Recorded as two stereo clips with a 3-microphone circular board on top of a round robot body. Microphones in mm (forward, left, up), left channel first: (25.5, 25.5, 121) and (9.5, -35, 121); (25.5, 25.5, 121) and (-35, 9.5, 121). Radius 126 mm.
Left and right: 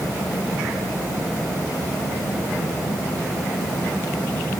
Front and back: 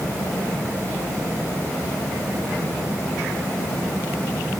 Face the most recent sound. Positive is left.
No sound to turn to.